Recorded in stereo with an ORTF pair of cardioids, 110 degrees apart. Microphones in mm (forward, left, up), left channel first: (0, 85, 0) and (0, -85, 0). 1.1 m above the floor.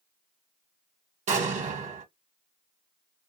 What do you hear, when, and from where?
1.3 s an explosion: 45° right, 1.1 m